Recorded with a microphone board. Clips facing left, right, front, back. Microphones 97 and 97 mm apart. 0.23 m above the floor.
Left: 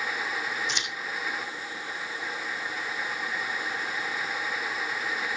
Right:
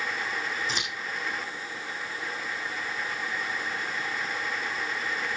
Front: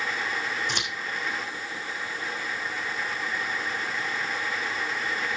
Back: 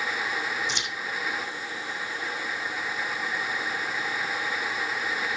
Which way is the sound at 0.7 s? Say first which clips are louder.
Right 1 dB, front 1 dB; 40° right.